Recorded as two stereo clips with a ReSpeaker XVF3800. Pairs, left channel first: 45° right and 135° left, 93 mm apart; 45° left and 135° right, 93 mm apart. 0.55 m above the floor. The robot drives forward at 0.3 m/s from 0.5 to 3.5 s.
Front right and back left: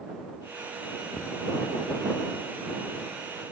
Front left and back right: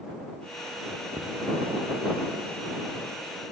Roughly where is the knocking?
Behind right.